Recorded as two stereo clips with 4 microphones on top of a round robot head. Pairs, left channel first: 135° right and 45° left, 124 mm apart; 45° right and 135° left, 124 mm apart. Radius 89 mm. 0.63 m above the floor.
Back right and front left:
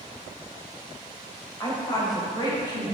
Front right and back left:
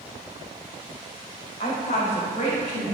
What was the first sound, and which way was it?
A woman speaking, 75° right.